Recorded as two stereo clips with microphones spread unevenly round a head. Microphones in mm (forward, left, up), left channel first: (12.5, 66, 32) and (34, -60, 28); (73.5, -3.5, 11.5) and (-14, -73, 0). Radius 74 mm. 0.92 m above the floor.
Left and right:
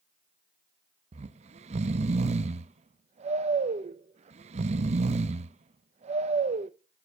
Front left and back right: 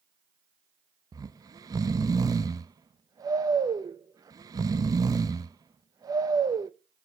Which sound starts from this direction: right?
Snoring, at 1.1 s.